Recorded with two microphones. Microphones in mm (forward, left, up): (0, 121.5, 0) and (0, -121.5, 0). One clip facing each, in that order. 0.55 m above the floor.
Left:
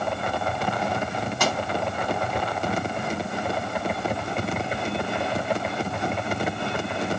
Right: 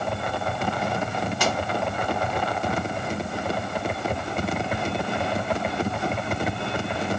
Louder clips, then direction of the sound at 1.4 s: Left 1 dB; 55° left (ahead or behind).